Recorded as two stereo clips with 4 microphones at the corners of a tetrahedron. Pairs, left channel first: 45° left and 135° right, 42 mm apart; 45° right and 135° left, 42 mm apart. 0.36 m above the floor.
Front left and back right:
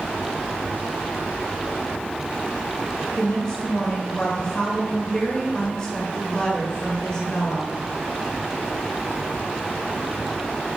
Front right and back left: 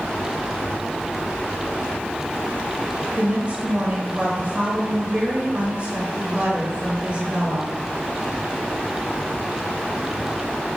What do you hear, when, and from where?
3.2 s a woman speaking: 100° left, 1.2 m